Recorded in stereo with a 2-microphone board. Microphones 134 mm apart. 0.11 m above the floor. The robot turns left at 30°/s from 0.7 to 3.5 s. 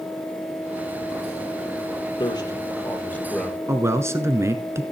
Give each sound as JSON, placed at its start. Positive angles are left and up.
{"t": 2.2, "sound": "a man speaking", "azimuth_deg": 45, "distance_m": 3.5}
{"t": 3.7, "sound": "a man speaking", "side_deg": -20, "distance_m": 1.3}